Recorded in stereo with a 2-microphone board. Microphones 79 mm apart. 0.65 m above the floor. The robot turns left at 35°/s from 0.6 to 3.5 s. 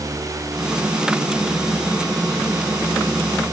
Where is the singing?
I don't hear singing.